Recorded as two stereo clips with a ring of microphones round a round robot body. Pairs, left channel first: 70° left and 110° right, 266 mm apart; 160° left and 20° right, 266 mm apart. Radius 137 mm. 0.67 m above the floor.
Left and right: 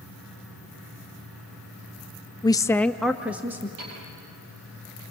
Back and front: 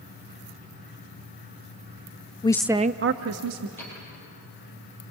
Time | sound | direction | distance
2.4 | a woman speaking | 120° left | 0.6 m
3.8 | a piano | 120° right | 9.5 m